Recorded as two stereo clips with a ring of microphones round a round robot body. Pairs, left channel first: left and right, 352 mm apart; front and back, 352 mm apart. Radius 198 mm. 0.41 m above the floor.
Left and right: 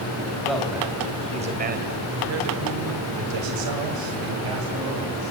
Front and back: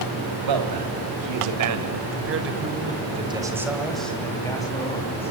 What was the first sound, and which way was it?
A man speaking, straight behind.